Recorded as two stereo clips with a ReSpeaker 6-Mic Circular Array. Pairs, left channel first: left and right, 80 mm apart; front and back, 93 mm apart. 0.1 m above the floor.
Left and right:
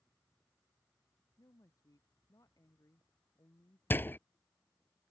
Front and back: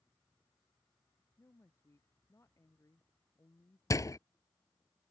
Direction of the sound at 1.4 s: 55° left.